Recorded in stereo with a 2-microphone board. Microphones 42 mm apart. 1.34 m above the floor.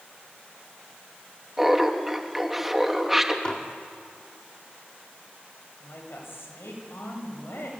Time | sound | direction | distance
1.6 | laughter | 5° right (ahead or behind) | 2.5 m
3.5 | dishes clattering | 30° left (ahead or behind) | 2 m
5.8 | a woman speaking | 85° left | 7 m